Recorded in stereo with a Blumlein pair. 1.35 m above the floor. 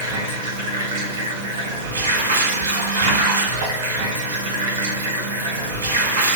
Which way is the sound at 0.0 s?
60° right.